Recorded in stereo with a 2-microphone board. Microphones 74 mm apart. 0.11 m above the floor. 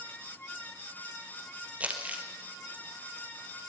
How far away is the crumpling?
About 3.5 m.